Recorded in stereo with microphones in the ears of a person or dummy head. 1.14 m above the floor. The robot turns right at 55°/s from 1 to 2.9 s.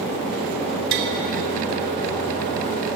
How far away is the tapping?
About 4 m.